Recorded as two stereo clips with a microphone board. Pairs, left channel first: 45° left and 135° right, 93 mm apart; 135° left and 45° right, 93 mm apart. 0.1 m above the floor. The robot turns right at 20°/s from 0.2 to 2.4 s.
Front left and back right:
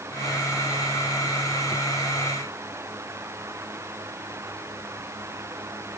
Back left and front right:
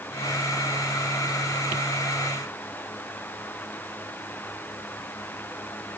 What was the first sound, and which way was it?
Only background noise.